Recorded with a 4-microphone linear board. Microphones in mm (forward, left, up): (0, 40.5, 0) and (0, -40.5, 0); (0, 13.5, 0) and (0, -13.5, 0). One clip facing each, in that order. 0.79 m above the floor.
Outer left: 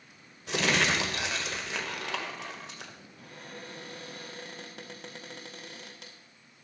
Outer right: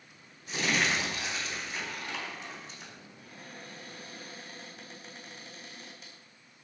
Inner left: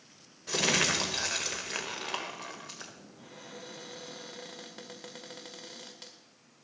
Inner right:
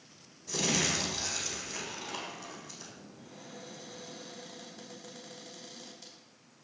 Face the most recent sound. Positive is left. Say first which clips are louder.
# outer left 4 dB, inner left 3 dB
turn(degrees=70)  # may be behind; listen again after turning